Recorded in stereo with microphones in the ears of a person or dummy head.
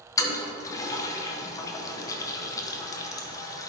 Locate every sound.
0.2 s a toilet flushing: 15° left (ahead or behind), 0.9 m